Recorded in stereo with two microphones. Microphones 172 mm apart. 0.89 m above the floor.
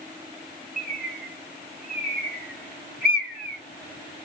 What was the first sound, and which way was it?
A bird, 60° right (ahead or behind).